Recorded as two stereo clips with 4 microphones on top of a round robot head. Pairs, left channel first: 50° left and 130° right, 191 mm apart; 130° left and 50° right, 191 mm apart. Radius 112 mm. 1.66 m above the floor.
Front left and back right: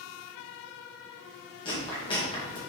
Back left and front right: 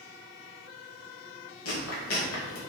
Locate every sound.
1.6 s chewing: 115° left, 2 m